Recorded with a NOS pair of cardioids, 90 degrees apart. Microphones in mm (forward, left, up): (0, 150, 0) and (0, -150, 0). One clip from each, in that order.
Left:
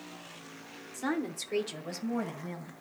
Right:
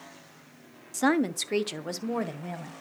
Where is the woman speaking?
60° right, 0.7 m; by 2.7 s 35° right, 1.5 m.